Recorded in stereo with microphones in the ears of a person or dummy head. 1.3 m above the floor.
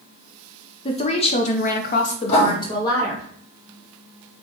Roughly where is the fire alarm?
I don't hear a fire alarm.